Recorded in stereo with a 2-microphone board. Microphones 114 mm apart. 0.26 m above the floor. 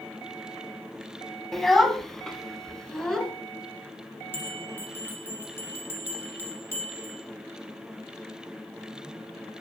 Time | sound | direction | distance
1.5 | a child speaking | centre (ahead or behind) | 1.0 m
4.3 | a bell | 20° left (ahead or behind) | 2 m